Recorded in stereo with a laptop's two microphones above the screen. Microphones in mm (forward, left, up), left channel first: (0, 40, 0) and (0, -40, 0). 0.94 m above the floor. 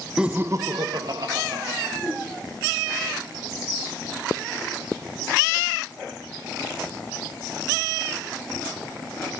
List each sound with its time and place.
0.2 s laughter: 10° right (ahead or behind), 0.6 m; by 1.9 s 55° right (ahead or behind), 1.6 m
2.0 s a whoosh: centre (ahead or behind), 4 m